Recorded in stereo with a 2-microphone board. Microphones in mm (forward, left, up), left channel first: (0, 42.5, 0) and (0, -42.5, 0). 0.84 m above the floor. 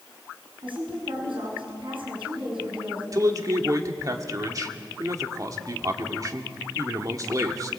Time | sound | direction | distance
0.6 | a woman speaking | 80° right | 8 m
3.1 | a man speaking | 40° right (ahead or behind) | 2 m